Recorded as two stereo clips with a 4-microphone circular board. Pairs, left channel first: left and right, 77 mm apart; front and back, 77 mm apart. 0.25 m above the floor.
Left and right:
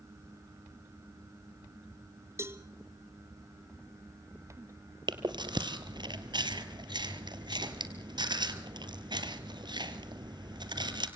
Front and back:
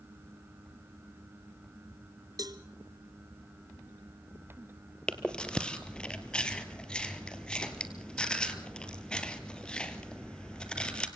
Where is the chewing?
75° right, 1.7 m.